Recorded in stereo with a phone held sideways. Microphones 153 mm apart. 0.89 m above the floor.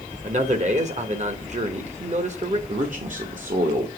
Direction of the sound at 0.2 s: 50° right (ahead or behind).